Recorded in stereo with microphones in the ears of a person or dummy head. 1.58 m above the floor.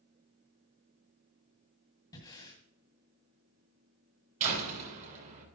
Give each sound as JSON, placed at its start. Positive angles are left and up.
{"t": 2.1, "sound": "breathing", "side_deg": 20, "distance_m": 1.8}
{"t": 4.4, "sound": "a door slam", "side_deg": -40, "distance_m": 6.0}